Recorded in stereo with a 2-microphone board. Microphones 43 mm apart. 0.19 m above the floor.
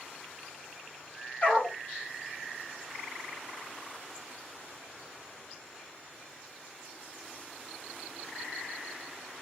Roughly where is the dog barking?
Left.